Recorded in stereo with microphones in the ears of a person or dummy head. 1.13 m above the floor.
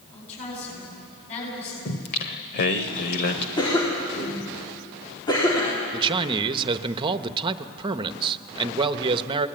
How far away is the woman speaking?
About 10 m.